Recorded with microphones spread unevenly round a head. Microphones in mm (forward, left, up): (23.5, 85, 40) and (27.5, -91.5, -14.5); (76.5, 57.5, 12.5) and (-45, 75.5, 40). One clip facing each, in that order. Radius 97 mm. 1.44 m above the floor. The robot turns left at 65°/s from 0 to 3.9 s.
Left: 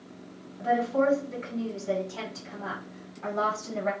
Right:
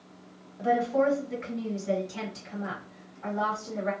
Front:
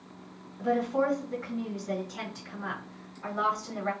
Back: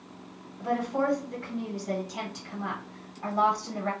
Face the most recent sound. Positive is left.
turn(degrees=95)